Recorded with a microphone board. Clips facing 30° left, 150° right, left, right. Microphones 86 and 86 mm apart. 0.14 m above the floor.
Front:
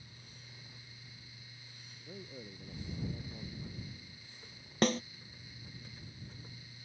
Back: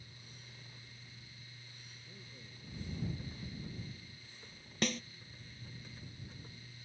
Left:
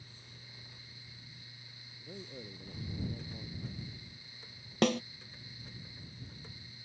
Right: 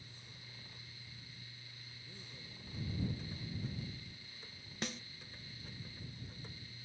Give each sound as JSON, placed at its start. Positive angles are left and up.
{"t": 2.0, "sound": "a man speaking", "azimuth_deg": 65}
{"t": 4.8, "sound": "a snare drum", "azimuth_deg": 80}